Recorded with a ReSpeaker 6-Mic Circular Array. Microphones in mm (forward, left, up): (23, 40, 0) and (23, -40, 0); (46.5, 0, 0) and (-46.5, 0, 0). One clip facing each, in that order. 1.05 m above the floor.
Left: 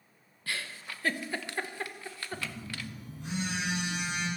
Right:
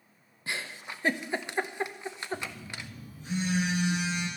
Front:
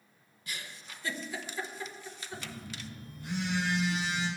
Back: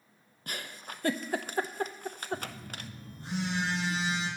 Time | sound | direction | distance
0.5 | a giggle | 155° right | 0.8 m
2.3 | a phone buzzing | 120° left | 6 m